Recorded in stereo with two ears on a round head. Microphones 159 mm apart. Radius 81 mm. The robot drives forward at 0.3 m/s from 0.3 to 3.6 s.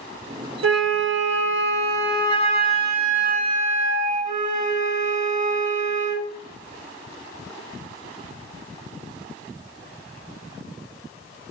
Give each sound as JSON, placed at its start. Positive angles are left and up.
{"t": 0.6, "sound": "a flute", "side_deg": -85, "distance_m": 1.0}